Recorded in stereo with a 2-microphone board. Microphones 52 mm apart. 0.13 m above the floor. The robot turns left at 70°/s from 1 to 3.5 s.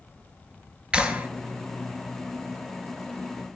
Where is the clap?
20° right (ahead or behind), 1.4 m; by 1.3 s 35° right (ahead or behind), 1.4 m.